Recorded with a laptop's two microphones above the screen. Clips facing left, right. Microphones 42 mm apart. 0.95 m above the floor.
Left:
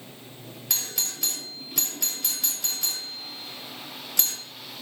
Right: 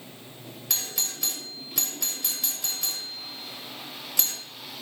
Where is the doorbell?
Centre (ahead or behind), 1.0 m.